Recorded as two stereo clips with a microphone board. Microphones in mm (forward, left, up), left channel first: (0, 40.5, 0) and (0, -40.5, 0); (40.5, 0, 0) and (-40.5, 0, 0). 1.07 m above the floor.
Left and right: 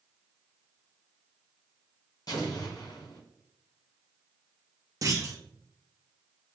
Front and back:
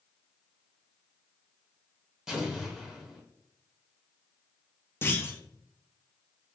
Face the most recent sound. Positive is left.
turn(degrees=-55)